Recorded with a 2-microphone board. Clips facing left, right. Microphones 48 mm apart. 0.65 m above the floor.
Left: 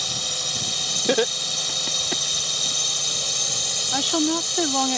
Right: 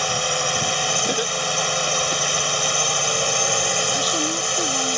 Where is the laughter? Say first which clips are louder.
Left 1 dB; 30° left (ahead or behind).